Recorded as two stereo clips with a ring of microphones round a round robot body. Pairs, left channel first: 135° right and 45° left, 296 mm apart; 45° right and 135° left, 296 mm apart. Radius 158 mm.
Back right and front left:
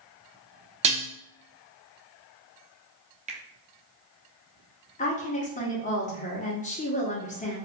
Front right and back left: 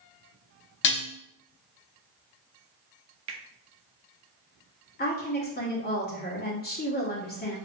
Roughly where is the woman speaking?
Right.